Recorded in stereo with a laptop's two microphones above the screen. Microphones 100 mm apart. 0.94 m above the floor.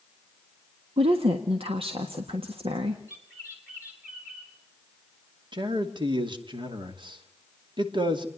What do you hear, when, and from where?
1.0 s a woman speaking: 65° right (ahead or behind), 1.5 m
3.1 s a bird: 15° right (ahead or behind), 6 m
5.5 s a man speaking: 50° right (ahead or behind), 2.5 m